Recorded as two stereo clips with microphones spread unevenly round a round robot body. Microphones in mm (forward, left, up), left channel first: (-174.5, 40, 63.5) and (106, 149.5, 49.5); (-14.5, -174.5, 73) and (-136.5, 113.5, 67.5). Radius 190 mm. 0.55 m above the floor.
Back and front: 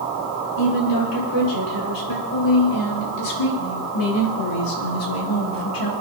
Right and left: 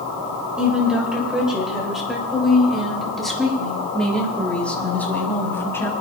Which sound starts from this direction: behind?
A woman speaking, at 0.6 s.